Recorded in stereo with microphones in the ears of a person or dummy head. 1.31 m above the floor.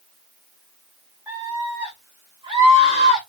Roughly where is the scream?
Centre.